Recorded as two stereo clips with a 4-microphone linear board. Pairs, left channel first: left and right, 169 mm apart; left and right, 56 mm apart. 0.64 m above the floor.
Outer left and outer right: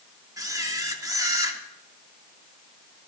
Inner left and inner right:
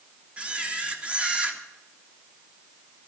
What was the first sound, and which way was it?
A camera shutter, 20° right (ahead or behind).